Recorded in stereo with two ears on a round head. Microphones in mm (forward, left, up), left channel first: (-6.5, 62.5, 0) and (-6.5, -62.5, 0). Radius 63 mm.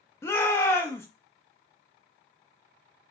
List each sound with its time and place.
0.2 s a shout: 20° left (ahead or behind), 0.8 m